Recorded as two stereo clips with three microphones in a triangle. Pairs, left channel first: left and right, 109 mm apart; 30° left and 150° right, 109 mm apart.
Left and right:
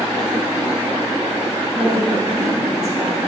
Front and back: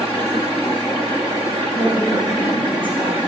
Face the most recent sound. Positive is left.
turn(degrees=175)